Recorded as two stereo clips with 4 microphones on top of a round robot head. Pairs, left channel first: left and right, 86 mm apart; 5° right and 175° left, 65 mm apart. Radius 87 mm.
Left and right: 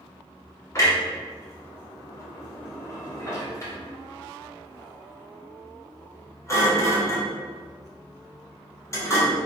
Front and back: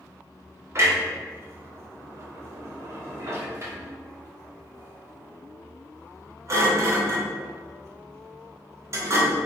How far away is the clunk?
About 1.8 m.